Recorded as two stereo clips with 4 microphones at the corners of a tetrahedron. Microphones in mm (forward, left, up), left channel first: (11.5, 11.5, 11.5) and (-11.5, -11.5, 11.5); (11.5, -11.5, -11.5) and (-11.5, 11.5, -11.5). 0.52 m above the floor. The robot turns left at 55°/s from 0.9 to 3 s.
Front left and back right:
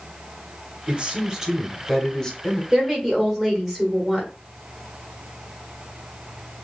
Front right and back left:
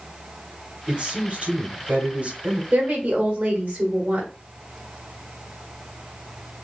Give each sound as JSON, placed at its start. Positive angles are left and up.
{"t": 0.9, "sound": "a man speaking", "azimuth_deg": -170, "distance_m": 1.5}
{"t": 2.7, "sound": "a woman speaking", "azimuth_deg": 160, "distance_m": 1.5}